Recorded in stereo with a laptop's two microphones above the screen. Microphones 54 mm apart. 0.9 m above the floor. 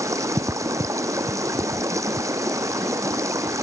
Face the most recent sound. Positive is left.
turn(degrees=-80)